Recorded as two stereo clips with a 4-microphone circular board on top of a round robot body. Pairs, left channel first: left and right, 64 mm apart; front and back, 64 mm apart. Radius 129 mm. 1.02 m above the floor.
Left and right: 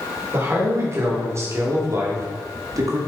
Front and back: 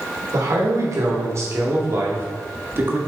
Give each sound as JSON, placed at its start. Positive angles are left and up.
{"t": 0.3, "sound": "a man speaking", "azimuth_deg": -140, "distance_m": 3.5}